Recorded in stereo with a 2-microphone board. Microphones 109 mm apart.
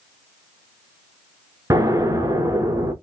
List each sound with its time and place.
1.7 s an explosion: 30° right (ahead or behind), 1.0 m